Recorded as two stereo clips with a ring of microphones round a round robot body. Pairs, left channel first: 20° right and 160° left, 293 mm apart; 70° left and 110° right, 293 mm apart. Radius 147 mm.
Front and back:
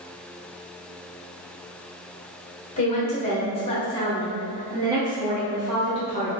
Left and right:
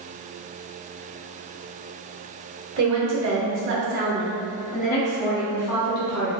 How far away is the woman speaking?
About 1.3 m.